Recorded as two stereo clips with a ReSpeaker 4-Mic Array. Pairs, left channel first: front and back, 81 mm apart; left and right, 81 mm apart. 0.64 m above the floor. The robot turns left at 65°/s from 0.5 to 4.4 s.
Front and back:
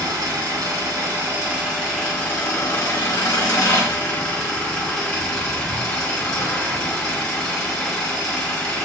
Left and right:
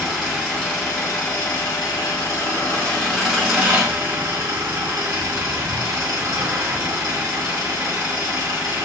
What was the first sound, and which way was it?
An engine running, straight behind.